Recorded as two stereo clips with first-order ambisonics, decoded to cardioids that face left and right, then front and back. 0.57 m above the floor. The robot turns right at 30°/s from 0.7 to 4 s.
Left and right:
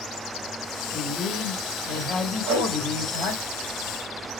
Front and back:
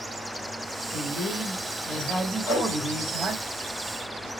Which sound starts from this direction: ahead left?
A man speaking, at 0.9 s.